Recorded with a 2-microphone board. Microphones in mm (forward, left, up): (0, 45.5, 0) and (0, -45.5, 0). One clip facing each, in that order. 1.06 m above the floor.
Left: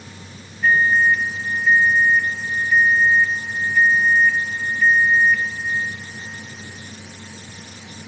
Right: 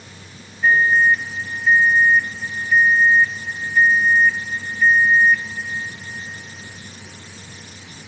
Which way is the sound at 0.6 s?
10° right (ahead or behind).